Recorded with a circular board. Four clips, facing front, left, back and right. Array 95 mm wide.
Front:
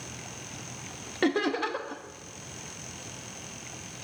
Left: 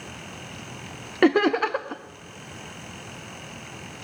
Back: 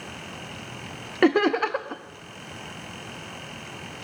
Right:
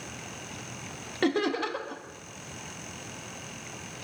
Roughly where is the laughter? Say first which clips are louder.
Left 8 dB, back 7 dB; behind left.